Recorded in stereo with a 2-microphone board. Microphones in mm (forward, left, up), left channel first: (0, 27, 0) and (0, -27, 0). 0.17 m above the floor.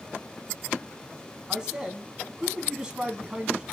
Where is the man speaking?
15° right (ahead or behind), 1.5 m.